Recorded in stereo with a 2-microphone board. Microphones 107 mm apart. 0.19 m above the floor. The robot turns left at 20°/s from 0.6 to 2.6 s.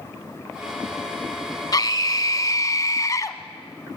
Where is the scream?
40° left (ahead or behind), 1.3 m; by 3.4 s 30° left (ahead or behind), 1.3 m.